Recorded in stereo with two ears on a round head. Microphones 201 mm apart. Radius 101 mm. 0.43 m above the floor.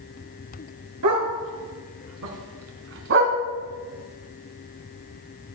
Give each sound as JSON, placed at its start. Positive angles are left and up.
{"t": 1.0, "sound": "a dog barking", "side_deg": -85, "distance_m": 2.5}